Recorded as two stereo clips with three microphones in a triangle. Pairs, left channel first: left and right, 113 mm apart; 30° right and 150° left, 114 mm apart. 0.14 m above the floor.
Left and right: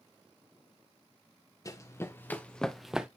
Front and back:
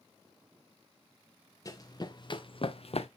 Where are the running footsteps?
30° left, 1.4 m; by 3.1 s 10° right, 1.0 m.